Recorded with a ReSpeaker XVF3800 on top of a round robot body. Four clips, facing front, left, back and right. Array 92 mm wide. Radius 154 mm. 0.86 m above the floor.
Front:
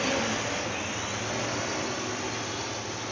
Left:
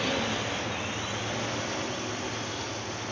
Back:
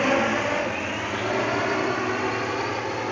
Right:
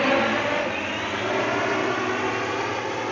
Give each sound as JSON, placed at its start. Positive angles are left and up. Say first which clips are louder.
{"t": 0.0, "sound": "a drone", "louder": "right 9 dB, back 7 dB", "azimuth_deg": -130}